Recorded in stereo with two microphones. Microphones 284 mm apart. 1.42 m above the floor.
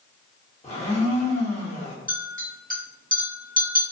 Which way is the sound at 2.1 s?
30° right (ahead or behind).